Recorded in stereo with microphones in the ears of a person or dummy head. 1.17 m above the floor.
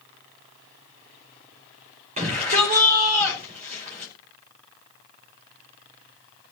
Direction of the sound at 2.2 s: 50° right (ahead or behind).